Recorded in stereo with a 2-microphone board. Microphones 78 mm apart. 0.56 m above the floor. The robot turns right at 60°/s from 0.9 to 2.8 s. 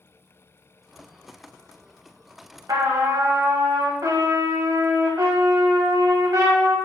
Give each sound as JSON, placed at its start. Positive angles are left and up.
{"t": 2.7, "sound": "a trumpet", "side_deg": -55, "distance_m": 0.6}